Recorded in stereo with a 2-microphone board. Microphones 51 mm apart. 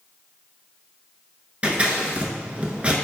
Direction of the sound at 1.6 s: 25° right (ahead or behind).